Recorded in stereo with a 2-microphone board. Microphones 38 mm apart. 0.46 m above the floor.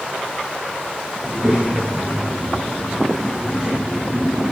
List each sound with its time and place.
1.2 s a child speaking: 20° right (ahead or behind), 4.5 m